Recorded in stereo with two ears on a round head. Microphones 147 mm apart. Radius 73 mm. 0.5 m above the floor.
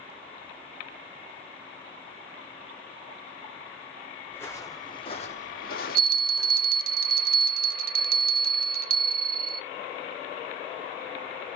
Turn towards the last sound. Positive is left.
turn(degrees=-55)  # may be behind; listen again after turning